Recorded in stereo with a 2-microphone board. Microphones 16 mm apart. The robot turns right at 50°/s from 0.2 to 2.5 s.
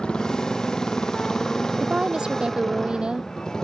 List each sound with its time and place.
0.0 s a motorcycle: 80° left; by 3.6 s 40° left (ahead or behind)
1.8 s a woman speaking: 110° right; by 3.3 s 75° right